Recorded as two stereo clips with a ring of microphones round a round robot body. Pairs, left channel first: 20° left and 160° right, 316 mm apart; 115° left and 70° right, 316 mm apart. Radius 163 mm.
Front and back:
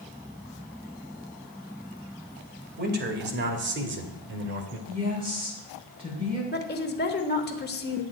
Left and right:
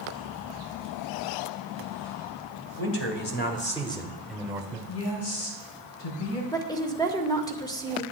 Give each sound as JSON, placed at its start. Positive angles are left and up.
{"t": 2.8, "sound": "a man speaking", "azimuth_deg": 150, "distance_m": 2.0}
{"t": 4.9, "sound": "a woman speaking", "azimuth_deg": 130, "distance_m": 6.0}
{"t": 6.5, "sound": "a woman speaking", "azimuth_deg": 45, "distance_m": 1.4}